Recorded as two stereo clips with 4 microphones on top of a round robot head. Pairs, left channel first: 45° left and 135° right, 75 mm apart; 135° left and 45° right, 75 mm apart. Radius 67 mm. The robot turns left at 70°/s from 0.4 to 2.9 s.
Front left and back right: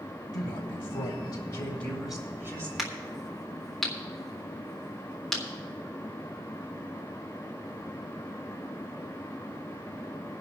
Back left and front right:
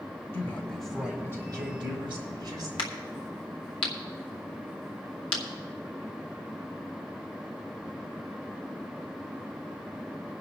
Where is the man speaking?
75° left, 3.5 m; by 2.7 s 85° right, 3.5 m.